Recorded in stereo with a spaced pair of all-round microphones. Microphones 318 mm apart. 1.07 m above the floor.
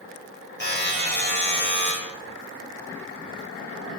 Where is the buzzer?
35° left (ahead or behind), 5 m.